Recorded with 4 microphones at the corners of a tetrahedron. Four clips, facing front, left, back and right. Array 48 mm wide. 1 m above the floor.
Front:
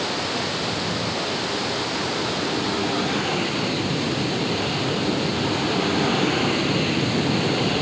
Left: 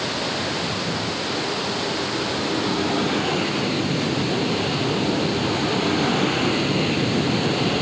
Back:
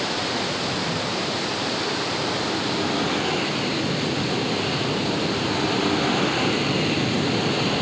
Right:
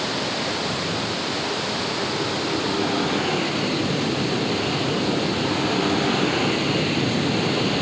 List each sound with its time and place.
Only background noise.